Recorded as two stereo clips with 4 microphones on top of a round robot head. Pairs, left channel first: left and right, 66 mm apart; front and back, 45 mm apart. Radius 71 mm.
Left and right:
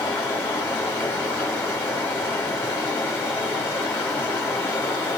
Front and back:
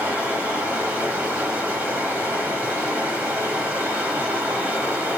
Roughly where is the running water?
Behind left.